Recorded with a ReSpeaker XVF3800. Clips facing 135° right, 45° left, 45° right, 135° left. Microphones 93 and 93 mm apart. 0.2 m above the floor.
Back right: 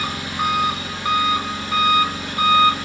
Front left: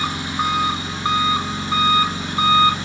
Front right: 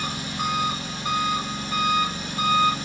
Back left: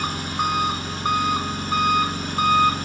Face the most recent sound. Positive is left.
turn(degrees=110)